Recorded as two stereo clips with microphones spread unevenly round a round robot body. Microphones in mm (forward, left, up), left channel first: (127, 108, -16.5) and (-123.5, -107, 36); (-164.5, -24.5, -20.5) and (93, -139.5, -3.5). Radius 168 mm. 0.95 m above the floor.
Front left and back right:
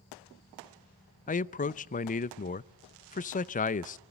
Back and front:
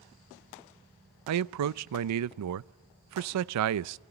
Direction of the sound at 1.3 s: 15° right.